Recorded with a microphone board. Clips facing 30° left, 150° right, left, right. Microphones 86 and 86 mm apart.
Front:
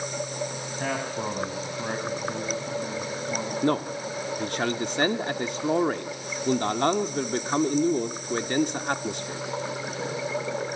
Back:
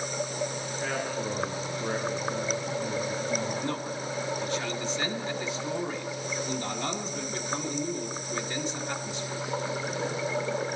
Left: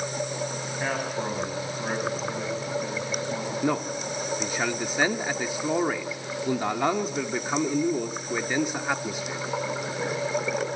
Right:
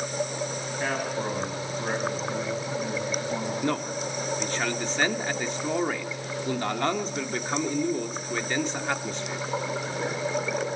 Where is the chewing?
I don't hear chewing.